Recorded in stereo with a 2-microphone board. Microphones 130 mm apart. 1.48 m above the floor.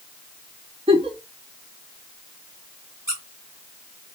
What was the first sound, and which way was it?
A giggle, 45° right (ahead or behind).